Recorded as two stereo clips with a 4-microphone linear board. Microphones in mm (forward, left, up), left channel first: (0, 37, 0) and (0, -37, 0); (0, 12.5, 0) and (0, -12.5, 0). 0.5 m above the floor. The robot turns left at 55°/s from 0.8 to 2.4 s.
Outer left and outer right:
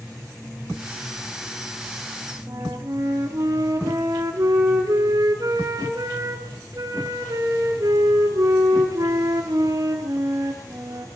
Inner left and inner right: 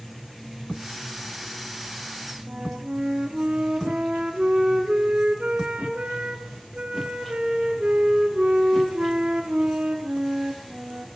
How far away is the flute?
About 4 m.